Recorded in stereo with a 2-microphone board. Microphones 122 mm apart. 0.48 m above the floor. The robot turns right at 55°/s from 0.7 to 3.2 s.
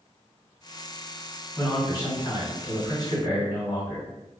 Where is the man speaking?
30° left, 1.7 m; by 4.0 s 120° left, 1.7 m.